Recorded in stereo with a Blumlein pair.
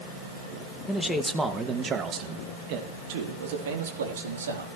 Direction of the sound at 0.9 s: 10° left.